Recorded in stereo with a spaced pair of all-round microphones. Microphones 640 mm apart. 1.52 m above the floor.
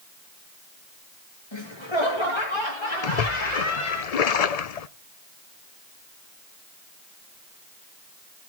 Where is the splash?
70° left (ahead or behind), 0.7 m.